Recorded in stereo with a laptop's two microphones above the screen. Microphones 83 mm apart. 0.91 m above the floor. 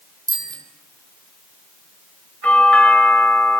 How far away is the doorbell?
About 6.5 m.